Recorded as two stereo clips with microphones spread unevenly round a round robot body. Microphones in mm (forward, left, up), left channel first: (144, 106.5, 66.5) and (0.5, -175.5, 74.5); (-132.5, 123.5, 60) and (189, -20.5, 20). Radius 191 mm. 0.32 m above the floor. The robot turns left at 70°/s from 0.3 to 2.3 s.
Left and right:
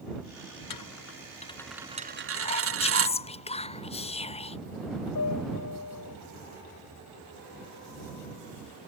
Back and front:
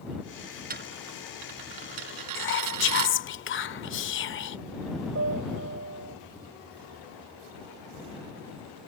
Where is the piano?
30° left.